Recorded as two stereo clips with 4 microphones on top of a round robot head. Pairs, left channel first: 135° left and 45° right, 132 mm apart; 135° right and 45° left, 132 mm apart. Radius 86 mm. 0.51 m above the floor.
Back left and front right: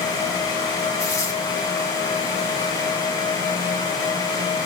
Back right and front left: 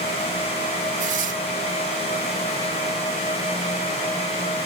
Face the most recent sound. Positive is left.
turn(degrees=70)